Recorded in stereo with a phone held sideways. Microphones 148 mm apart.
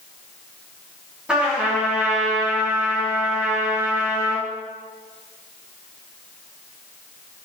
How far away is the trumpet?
About 1.9 m.